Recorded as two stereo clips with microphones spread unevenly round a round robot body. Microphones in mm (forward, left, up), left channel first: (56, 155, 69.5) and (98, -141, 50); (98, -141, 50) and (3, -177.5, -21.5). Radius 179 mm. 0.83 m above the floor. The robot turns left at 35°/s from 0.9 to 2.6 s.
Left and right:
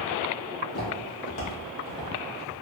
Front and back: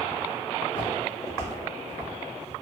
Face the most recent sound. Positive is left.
turn(degrees=20)